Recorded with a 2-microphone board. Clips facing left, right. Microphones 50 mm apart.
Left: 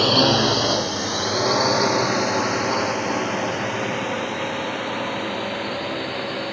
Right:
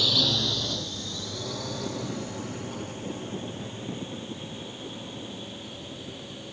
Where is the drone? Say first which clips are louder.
Left 10 dB; 55° left (ahead or behind); by 6.5 s 85° left.